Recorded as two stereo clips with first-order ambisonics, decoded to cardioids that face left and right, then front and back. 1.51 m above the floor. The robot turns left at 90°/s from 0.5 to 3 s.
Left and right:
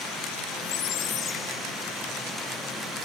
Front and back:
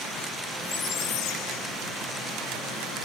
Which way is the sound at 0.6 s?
80° left.